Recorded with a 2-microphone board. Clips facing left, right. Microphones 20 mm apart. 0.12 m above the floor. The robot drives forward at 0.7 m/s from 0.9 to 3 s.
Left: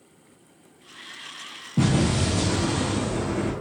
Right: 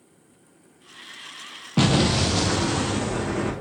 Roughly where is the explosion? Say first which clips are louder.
Right 3 dB; right.